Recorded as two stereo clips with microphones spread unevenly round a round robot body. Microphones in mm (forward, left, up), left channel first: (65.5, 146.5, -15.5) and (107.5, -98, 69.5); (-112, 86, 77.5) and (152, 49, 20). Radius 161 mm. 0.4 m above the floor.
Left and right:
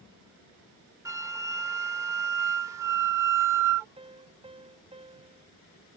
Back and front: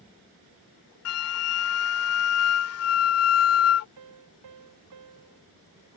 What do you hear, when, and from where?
1.1 s a flute: 175° right
4.0 s a piano: 15° right